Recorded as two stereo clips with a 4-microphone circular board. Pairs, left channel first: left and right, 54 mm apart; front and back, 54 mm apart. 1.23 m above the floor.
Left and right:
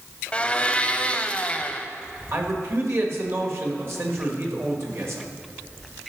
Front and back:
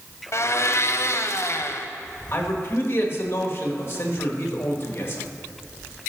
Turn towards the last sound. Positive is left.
turn(degrees=-50)